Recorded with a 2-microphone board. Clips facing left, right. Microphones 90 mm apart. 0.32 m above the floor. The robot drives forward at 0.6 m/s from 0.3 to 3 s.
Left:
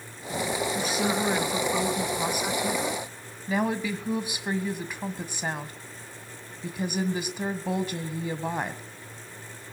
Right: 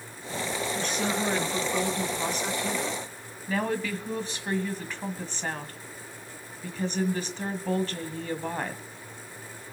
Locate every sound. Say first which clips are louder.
0.8 s a woman speaking: left 1 dB; 5° left (ahead or behind), 3 m; by 8.8 s 10° left (ahead or behind), 1.8 m